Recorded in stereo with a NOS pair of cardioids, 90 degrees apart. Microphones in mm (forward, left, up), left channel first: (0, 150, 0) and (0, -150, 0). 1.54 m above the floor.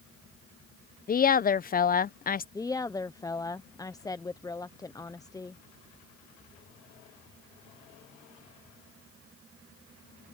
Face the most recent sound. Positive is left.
turn(degrees=10)